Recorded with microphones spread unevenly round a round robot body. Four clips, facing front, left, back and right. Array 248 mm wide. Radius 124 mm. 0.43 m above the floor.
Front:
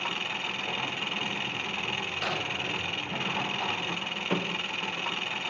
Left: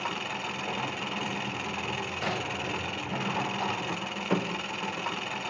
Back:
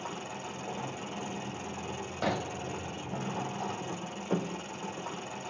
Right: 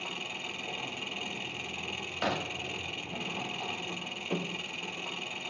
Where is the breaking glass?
145° right, 1.4 m.